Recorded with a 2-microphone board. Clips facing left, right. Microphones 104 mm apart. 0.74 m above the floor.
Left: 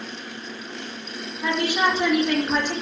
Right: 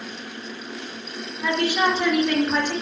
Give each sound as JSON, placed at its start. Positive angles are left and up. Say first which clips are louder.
{"t": 1.4, "sound": "a woman speaking", "louder": "right 1 dB", "side_deg": 10, "distance_m": 0.6}